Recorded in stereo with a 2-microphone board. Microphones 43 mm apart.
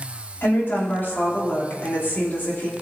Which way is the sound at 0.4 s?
50° left (ahead or behind).